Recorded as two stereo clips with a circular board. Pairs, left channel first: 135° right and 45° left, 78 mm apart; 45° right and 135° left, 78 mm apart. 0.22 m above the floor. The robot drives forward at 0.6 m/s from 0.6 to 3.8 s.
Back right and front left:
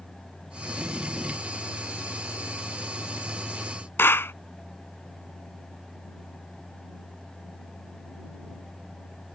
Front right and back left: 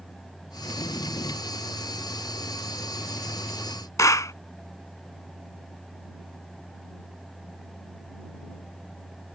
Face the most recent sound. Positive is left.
turn(degrees=-80)